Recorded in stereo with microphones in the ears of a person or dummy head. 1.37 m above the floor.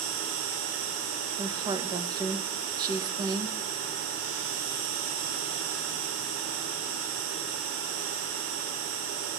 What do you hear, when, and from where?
0.0 s an insect: 70° right (ahead or behind), 3 m
1.4 s a woman speaking: 25° right (ahead or behind), 1.2 m